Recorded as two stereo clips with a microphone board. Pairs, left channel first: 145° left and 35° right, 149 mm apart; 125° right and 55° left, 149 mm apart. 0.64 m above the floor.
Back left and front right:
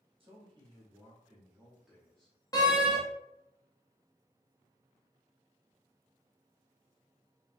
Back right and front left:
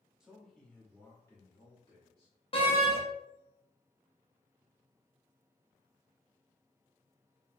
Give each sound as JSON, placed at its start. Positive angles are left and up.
{"t": 0.2, "sound": "a man speaking", "azimuth_deg": -25, "distance_m": 1.0}
{"t": 2.5, "sound": "a door slam", "azimuth_deg": -160, "distance_m": 0.7}